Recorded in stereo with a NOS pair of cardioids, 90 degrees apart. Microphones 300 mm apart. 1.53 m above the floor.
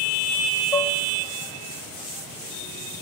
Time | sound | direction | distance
0.7 | dishes clattering | straight ahead | 1.9 m